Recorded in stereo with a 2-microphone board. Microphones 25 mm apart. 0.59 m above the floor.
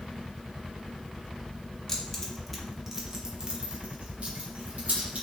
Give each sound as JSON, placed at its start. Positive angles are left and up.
{"t": 1.9, "sound": "keys jangling", "side_deg": 20, "distance_m": 0.9}